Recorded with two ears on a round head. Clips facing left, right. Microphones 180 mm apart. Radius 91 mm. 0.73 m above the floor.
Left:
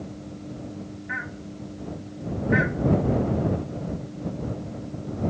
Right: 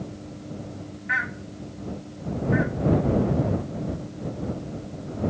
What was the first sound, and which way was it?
Only background noise.